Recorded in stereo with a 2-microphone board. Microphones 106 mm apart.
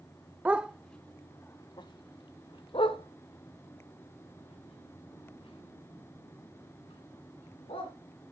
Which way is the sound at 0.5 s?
15° right (ahead or behind).